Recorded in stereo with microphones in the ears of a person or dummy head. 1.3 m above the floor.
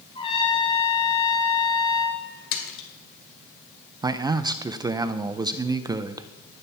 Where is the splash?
60° left (ahead or behind), 2 m.